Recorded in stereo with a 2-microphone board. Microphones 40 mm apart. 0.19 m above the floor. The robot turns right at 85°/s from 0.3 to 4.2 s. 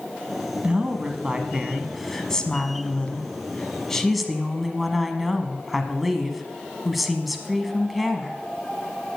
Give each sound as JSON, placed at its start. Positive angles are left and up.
{"t": 0.6, "sound": "a woman speaking", "azimuth_deg": -120, "distance_m": 1.1}